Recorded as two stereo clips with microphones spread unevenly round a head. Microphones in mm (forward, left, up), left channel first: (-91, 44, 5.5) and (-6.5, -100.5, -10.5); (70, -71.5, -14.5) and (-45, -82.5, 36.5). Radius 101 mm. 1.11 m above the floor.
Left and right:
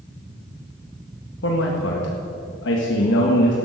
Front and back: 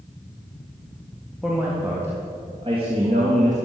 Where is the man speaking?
90° left, 1.8 m; by 3.5 s 130° left, 1.8 m.